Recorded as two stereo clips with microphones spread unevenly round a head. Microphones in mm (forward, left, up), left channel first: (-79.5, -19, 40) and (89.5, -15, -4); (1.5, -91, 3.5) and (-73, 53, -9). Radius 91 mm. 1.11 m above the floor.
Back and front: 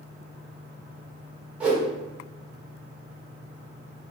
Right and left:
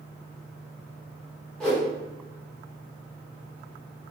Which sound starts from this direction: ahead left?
A whoosh, at 1.6 s.